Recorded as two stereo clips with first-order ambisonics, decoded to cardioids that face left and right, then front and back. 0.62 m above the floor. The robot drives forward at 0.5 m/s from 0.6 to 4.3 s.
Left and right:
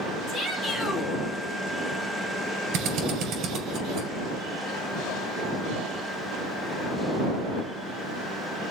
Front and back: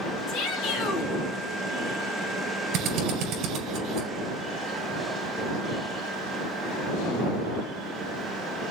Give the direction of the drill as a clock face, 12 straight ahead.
4 o'clock.